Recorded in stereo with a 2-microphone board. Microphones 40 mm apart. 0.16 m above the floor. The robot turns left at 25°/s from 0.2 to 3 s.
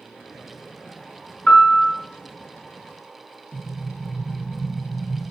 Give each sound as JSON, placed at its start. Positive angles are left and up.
{"t": 1.5, "sound": "a piano", "side_deg": 30, "distance_m": 1.6}
{"t": 3.5, "sound": "an explosion", "side_deg": -25, "distance_m": 1.9}